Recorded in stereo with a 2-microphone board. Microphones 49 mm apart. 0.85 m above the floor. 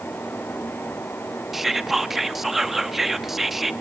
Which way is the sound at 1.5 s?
5° right (ahead or behind).